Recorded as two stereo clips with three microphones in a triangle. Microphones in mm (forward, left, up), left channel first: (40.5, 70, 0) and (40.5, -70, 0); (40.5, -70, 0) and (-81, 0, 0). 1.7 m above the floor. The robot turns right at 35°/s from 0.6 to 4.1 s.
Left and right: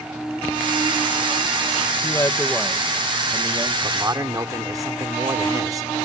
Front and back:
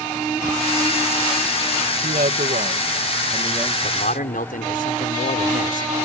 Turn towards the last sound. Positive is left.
turn(degrees=-25)